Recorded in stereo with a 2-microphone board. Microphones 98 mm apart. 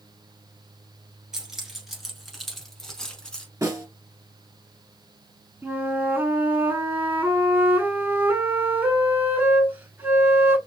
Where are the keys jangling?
5° right (ahead or behind), 1.8 m; by 3.5 s 10° left (ahead or behind), 1.2 m.